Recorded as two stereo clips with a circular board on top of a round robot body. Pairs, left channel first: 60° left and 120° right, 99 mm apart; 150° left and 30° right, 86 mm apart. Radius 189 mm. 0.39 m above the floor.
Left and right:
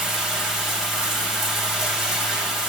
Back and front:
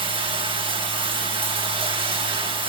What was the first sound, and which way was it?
Running water, 35° right.